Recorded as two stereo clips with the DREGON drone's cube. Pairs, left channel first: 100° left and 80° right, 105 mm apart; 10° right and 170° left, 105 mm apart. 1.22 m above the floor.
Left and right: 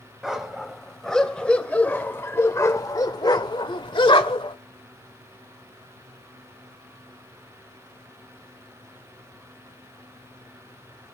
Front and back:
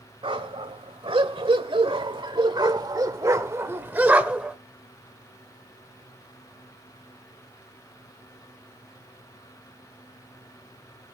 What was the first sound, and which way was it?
A dog barking, 165° right.